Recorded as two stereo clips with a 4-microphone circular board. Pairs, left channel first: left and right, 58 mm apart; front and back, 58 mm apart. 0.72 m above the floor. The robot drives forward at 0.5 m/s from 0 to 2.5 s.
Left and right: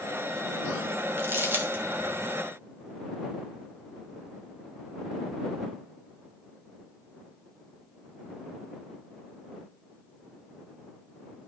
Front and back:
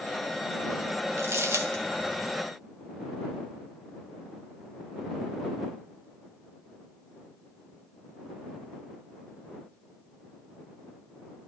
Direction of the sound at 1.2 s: 140° right.